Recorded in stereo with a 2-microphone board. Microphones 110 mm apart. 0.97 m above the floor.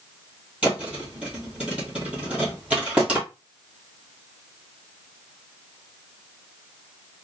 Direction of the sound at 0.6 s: 10° right (ahead or behind).